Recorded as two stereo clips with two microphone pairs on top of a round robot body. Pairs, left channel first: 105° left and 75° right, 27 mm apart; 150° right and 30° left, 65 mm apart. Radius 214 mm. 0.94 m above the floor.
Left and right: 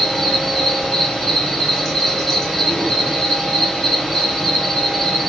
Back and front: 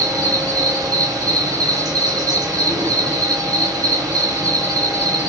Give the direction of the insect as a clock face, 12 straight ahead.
11 o'clock.